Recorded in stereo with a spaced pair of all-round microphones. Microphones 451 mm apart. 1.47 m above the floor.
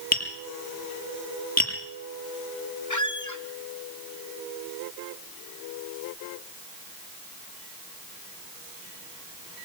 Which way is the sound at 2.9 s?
40° left (ahead or behind).